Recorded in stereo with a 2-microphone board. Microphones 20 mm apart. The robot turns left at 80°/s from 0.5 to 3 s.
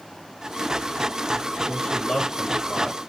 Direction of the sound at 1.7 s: 50° right (ahead or behind).